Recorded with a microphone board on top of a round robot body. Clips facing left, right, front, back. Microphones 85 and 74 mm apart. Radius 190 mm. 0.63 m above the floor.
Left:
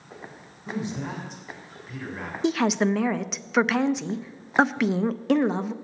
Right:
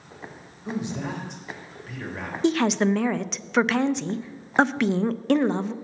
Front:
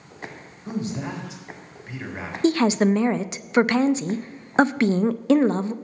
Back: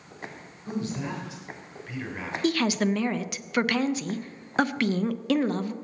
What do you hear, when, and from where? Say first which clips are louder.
0.7 s a man speaking: right 1 dB, front 2 dB; 65° right, 3 m
2.4 s a woman speaking: right 1 dB, front 6 dB; 5° left, 0.6 m